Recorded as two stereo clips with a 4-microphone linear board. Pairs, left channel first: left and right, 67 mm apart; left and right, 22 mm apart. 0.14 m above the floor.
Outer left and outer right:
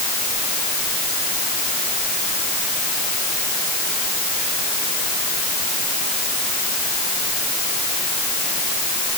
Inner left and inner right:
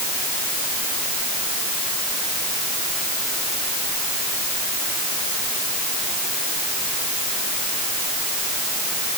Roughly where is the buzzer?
I don't hear a buzzer.